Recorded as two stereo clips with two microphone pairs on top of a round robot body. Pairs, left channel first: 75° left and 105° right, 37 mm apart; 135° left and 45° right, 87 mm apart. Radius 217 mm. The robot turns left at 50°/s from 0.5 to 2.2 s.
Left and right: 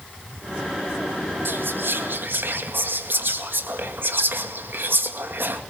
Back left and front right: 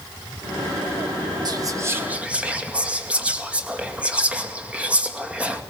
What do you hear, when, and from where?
1.4 s whispering: 85° right, 2.5 m; by 5.6 s 120° right, 2.5 m